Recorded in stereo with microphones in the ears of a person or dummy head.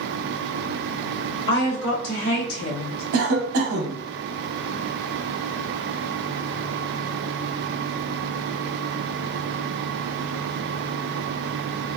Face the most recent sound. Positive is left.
turn(degrees=-85)